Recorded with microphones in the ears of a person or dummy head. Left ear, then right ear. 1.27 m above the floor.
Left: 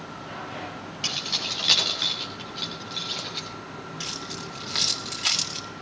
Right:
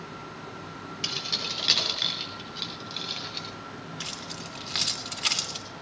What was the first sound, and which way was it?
Keys jangling, 5° right (ahead or behind).